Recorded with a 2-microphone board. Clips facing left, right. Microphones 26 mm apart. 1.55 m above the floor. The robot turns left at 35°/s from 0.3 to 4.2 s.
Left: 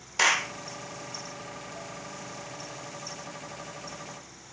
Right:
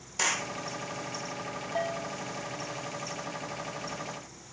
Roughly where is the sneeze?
No sneeze in this recording.